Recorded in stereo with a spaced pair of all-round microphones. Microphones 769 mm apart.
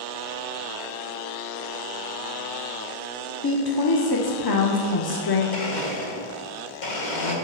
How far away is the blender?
About 1.2 m.